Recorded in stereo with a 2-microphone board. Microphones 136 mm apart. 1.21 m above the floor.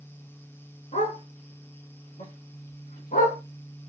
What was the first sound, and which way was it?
A dog barking, 60° left (ahead or behind).